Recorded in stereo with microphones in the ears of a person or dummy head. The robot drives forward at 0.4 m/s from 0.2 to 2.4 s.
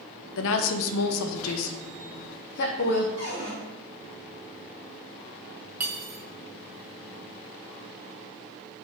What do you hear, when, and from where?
0.4 s a woman speaking: 75° left (ahead or behind), 0.8 m; by 3.1 s 55° left (ahead or behind), 1.0 m
3.2 s a cupboard door: 30° left (ahead or behind), 2.5 m
5.8 s cutlery clinking: 5° right (ahead or behind), 0.7 m